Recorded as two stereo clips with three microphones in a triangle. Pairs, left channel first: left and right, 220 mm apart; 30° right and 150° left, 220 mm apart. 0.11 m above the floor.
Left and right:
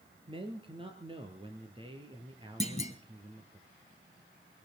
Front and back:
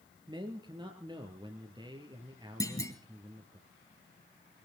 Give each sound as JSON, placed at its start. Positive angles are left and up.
{"t": 0.3, "sound": "a man speaking", "azimuth_deg": -145, "distance_m": 2.0}
{"t": 2.6, "sound": "a clunk", "azimuth_deg": 40, "distance_m": 2.5}